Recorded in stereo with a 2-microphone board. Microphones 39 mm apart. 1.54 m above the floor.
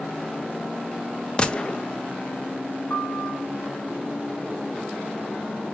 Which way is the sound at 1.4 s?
25° left (ahead or behind).